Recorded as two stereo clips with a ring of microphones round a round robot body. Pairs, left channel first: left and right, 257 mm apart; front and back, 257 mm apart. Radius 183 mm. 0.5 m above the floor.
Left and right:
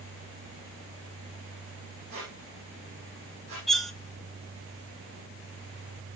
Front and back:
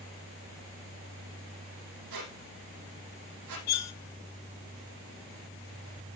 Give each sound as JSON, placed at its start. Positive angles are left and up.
{"t": 2.1, "sound": "a squeak", "azimuth_deg": -160, "distance_m": 5.0}
{"t": 3.7, "sound": "cutlery clinking", "azimuth_deg": 0, "distance_m": 1.0}